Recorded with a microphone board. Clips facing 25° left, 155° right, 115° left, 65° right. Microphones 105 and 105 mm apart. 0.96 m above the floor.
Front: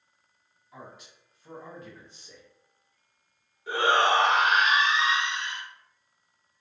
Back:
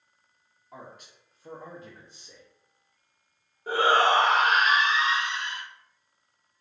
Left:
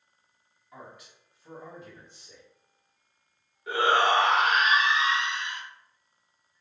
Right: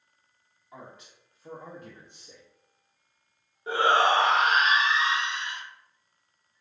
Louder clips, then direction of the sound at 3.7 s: Back 1 dB, right 1 dB; 120° right.